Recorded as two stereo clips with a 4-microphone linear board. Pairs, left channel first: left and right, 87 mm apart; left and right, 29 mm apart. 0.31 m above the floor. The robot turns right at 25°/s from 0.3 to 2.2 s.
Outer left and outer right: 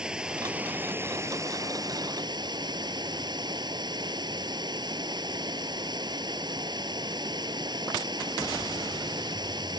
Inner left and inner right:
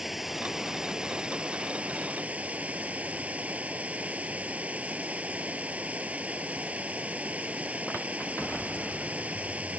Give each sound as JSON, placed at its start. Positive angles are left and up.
{"t": 0.0, "sound": "running water", "azimuth_deg": -170}